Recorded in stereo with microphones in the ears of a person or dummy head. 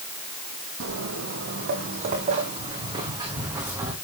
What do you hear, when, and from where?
0.8 s footsteps: 65° right (ahead or behind), 3 m; by 3.9 s 10° right (ahead or behind), 5 m